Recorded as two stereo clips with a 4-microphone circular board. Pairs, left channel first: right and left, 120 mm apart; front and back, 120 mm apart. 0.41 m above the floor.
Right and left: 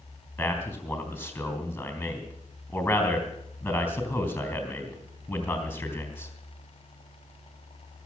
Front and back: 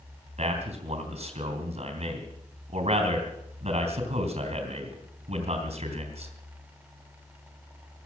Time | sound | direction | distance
0.4 | a man speaking | 165° right | 3.5 m